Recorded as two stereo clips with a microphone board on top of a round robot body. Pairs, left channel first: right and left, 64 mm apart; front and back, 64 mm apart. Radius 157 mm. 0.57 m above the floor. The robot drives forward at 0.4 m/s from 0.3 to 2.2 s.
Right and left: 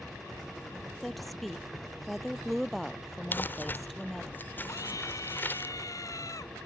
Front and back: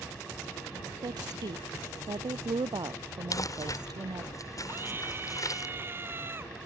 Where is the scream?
125° right.